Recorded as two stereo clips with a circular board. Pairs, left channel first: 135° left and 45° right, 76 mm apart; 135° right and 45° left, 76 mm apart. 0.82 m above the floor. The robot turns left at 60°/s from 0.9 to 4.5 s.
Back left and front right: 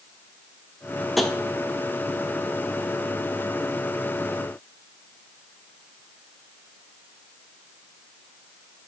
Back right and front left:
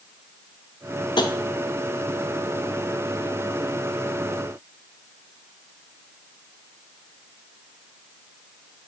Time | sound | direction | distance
1.2 | tapping | 135° right | 0.6 m